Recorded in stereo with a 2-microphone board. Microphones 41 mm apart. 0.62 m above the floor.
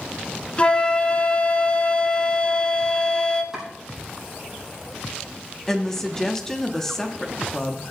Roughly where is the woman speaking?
Centre.